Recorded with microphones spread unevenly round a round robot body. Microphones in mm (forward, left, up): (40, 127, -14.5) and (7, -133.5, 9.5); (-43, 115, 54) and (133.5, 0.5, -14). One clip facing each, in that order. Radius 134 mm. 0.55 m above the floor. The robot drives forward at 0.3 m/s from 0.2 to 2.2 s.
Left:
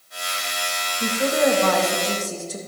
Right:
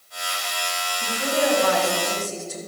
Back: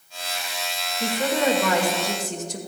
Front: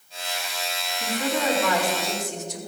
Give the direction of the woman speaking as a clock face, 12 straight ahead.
8 o'clock.